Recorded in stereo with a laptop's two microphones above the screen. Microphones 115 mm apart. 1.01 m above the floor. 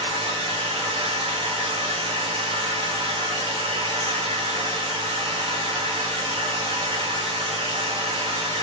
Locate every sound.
0.0 s a machine running: 50° right (ahead or behind), 1.9 m